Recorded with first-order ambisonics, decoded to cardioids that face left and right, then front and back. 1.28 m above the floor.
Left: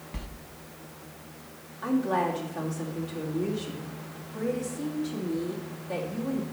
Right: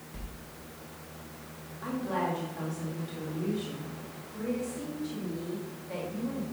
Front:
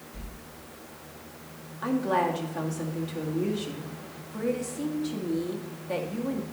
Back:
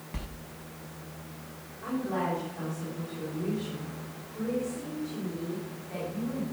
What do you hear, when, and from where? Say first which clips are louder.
0.1 s a sliding door: left 6 dB, back 4 dB; 145° left, 0.6 m
1.8 s a woman speaking: left 5 dB, front 6 dB; 15° left, 2 m